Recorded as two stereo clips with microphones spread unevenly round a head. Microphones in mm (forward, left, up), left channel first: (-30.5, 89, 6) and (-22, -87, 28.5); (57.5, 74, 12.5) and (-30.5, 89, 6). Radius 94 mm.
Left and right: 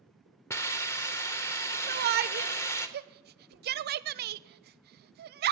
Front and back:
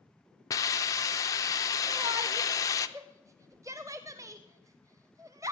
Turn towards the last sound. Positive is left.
turn(degrees=-120)